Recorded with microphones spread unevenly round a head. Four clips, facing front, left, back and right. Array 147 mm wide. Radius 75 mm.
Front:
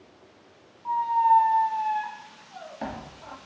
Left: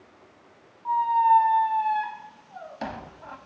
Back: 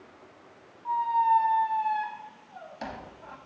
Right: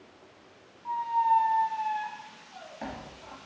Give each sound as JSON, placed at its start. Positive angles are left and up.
{"t": 0.8, "sound": "a squeak", "azimuth_deg": 45, "distance_m": 1.0}